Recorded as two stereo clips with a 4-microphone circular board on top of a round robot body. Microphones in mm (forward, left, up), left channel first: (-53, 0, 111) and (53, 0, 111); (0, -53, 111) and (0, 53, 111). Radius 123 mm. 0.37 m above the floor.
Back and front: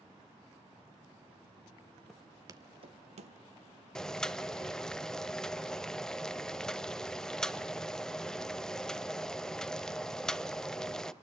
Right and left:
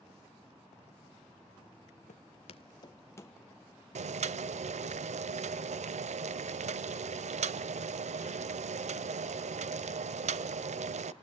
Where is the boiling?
95° left, 0.7 m.